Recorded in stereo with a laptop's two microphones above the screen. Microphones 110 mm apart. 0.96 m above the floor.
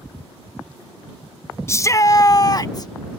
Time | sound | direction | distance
1.7 | a shout | 25° left (ahead or behind) | ?